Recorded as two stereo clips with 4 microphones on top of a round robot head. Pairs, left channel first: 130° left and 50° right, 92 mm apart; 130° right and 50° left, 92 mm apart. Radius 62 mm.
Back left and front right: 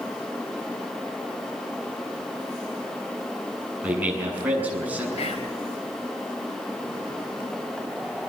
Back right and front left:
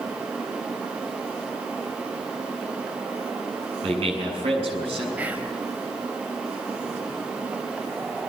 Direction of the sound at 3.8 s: 25° left.